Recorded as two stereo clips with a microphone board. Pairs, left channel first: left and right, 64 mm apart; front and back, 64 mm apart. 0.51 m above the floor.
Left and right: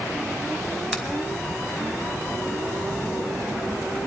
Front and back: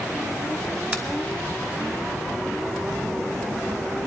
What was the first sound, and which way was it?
A finger snap, 165° right.